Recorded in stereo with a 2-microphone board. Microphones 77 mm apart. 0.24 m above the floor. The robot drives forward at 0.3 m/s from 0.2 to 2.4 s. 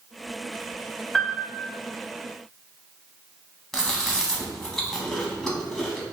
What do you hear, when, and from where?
1.1 s a piano: 10° left (ahead or behind), 0.6 m
3.7 s chewing: 5° left (ahead or behind), 0.9 m